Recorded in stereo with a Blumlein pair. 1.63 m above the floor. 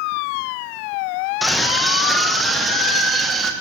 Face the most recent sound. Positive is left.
turn(degrees=-15)